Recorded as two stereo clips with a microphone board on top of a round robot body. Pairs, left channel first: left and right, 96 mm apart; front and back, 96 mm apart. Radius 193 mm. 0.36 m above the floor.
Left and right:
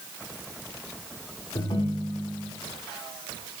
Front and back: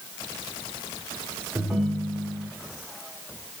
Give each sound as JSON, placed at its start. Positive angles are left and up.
{"t": 1.6, "sound": "a ringtone", "azimuth_deg": 105, "distance_m": 1.4}